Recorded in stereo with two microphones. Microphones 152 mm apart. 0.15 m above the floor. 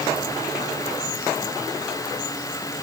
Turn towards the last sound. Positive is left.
No sound to turn to.